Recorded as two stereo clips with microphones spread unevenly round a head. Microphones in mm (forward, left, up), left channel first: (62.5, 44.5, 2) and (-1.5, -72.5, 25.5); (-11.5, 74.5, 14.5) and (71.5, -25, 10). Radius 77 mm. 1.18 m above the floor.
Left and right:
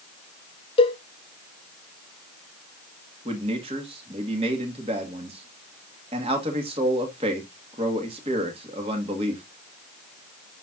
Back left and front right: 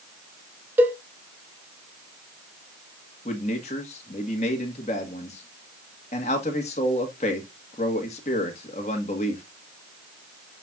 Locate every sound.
0.8 s a cowbell: 20° left, 1.0 m
3.2 s a man speaking: 175° right, 1.7 m